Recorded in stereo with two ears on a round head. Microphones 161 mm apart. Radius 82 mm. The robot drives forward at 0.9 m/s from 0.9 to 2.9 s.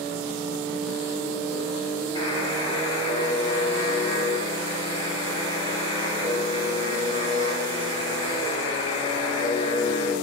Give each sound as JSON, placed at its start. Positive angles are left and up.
{"t": 2.1, "sound": "a buzzer", "side_deg": 25, "distance_m": 6.5}